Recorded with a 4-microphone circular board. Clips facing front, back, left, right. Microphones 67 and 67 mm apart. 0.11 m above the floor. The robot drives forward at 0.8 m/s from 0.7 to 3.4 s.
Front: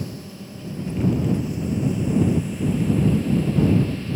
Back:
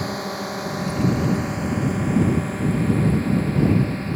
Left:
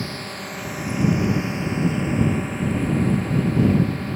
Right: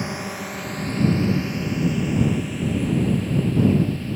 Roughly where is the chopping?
No chopping in this recording.